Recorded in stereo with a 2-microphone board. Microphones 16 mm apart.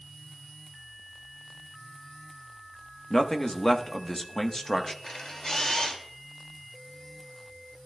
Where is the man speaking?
30° left (ahead or behind), 0.9 m.